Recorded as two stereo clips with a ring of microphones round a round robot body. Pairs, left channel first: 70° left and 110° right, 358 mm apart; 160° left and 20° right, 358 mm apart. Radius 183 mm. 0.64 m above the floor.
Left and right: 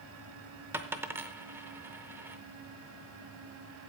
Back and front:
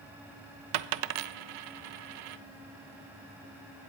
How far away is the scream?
I don't hear a scream.